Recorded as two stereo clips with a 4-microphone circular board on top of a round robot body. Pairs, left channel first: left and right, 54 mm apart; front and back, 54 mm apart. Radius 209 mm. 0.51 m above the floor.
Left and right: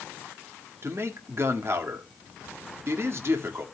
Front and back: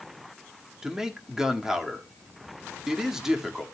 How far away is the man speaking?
About 1.9 m.